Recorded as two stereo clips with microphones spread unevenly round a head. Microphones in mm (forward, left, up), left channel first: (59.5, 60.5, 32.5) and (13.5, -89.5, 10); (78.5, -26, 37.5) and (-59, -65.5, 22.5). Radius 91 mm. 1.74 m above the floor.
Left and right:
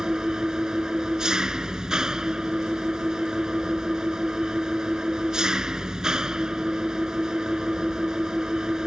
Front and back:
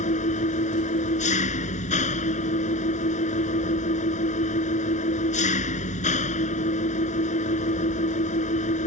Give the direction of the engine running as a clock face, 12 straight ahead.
1 o'clock.